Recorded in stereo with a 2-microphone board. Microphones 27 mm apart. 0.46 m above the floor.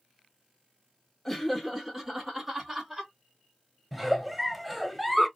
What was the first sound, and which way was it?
Laughter, 10° left (ahead or behind).